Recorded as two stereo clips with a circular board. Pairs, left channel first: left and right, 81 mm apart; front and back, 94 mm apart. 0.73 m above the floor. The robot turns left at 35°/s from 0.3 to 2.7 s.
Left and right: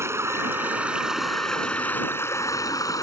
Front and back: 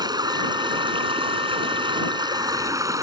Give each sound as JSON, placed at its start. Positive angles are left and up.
{"t": 0.0, "sound": "running water", "azimuth_deg": -145}